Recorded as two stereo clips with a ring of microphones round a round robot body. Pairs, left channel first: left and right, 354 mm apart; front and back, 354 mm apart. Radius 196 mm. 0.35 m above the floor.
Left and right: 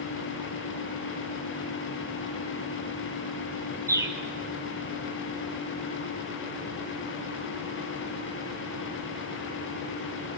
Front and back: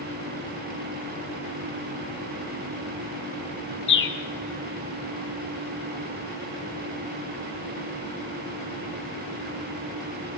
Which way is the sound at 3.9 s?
15° right.